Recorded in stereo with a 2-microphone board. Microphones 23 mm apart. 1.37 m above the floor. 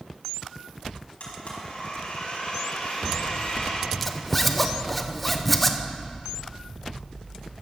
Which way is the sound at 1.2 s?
60° left (ahead or behind).